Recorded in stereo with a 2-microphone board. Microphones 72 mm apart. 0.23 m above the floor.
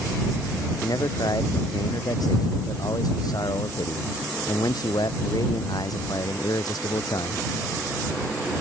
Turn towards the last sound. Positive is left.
turn(degrees=65)  # may be behind; listen again after turning